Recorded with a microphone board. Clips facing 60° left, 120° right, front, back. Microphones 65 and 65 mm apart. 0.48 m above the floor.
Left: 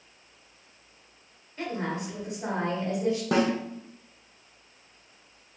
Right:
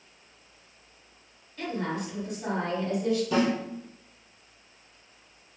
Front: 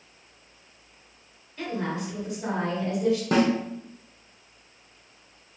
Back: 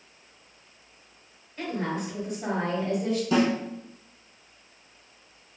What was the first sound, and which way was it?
A woman speaking, 105° left.